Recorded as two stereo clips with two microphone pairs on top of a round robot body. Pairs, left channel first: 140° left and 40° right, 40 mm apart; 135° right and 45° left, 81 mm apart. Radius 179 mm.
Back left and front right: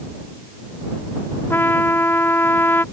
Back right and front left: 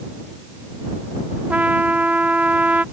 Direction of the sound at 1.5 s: 120° left.